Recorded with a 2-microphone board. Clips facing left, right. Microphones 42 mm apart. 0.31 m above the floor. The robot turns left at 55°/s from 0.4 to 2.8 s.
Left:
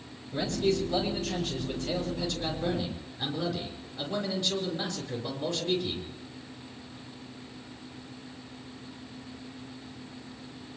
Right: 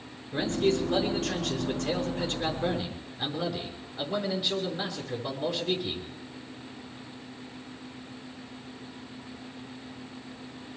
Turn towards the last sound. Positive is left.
turn(degrees=-165)